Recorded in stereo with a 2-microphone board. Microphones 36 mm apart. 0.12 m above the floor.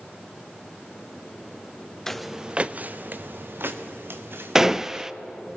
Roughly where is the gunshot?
Centre.